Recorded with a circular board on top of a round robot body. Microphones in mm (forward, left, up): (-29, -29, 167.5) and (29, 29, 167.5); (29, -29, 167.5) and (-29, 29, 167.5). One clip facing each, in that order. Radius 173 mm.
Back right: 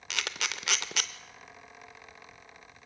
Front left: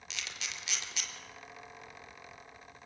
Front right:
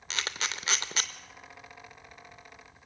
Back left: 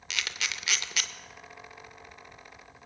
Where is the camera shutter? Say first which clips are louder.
Back right 9 dB, front right 1 dB; 100° right, 0.5 m.